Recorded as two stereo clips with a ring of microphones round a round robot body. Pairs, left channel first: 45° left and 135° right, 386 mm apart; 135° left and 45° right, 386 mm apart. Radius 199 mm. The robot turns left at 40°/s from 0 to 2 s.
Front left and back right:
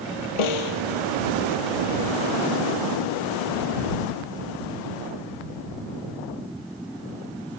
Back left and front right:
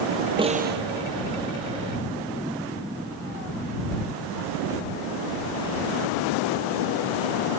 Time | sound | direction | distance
0.4 | a snare drum | 35° left | ?